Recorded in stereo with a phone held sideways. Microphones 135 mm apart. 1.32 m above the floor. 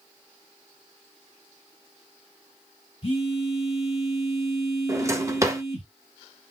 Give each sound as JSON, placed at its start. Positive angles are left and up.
{"t": 3.0, "sound": "a phone buzzing", "side_deg": 50, "distance_m": 2.0}
{"t": 4.9, "sound": "a drawer", "side_deg": -20, "distance_m": 0.7}